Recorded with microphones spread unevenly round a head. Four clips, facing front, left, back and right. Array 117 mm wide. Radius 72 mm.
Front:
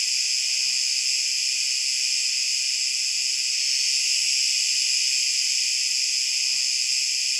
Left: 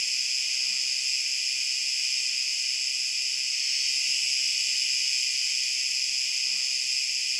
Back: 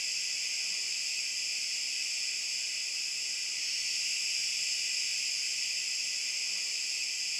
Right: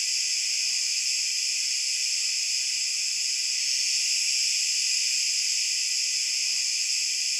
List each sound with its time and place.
0.0 s an insect: 20° left, 1.2 m